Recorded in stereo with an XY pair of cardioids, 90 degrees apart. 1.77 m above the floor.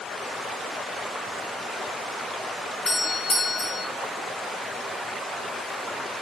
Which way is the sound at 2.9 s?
60° left.